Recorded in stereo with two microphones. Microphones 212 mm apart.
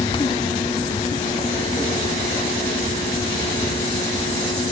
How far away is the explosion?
I don't hear an explosion.